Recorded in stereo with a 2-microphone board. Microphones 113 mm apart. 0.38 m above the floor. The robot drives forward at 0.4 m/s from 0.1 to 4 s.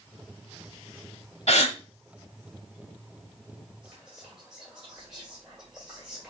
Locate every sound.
1.5 s a gasp: 70° left (ahead or behind), 0.8 m; by 1.8 s 75° left (ahead or behind), 0.8 m
3.8 s whispering: 10° right (ahead or behind), 1.6 m